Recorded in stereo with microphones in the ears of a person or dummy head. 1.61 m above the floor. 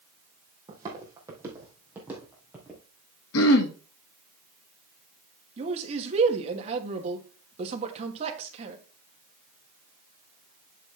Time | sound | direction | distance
0.7 | footsteps | 25° right (ahead or behind) | 3.5 m
3.3 | throat clearing | 75° left (ahead or behind) | 1.5 m
5.6 | a man speaking | 40° right (ahead or behind) | 2 m